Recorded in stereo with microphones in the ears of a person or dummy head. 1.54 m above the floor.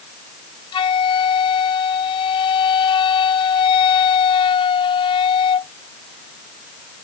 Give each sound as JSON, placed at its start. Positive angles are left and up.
{"t": 0.7, "sound": "a flute", "side_deg": 30}